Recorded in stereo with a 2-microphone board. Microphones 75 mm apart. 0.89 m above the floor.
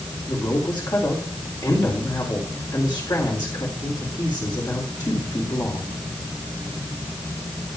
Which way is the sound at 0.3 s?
65° left (ahead or behind).